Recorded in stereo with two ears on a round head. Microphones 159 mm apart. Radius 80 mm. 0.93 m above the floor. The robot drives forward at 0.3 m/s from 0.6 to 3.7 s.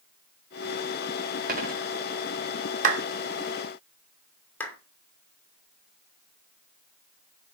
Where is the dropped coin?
55° right (ahead or behind), 4 m.